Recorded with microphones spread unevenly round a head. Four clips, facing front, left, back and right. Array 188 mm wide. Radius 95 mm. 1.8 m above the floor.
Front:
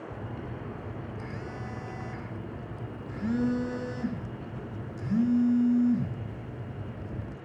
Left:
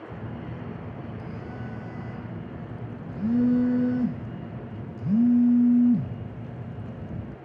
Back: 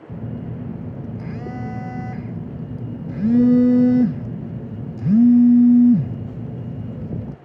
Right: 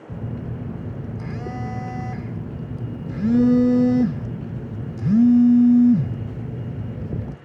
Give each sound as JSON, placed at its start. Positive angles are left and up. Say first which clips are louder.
{"t": 0.1, "sound": "a phone buzzing", "louder": "right 9 dB, back 7 dB", "azimuth_deg": -145, "distance_m": 0.5}